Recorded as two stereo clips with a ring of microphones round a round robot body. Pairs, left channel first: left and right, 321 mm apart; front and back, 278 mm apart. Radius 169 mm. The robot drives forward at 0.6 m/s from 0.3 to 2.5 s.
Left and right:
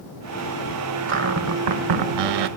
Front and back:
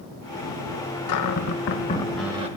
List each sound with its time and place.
1.1 s a cupboard door: 35° right, 0.8 m; by 2.5 s 110° right, 0.5 m